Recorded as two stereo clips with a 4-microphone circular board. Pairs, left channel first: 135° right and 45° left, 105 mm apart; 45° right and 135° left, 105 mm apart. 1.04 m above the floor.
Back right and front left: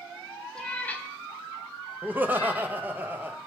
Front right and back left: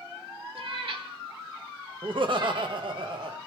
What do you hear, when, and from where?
0.6 s a cat meowing: 145° left, 0.9 m; by 2.8 s straight behind, 2.0 m
2.0 s laughter: 115° left, 1.0 m